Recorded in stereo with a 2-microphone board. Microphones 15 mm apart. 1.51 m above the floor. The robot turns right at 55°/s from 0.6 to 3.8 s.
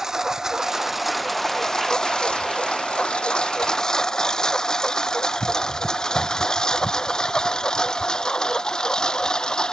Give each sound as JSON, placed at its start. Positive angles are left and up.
{"t": 0.0, "sound": "a lawn mower", "side_deg": -30}